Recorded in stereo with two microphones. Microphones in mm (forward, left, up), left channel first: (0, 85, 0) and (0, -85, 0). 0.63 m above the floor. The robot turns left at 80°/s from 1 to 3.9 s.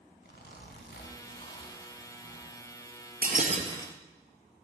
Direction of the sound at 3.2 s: 110° right.